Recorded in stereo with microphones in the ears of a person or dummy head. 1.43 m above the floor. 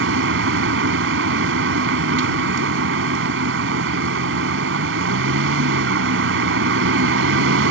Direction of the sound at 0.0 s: 70° right (ahead or behind).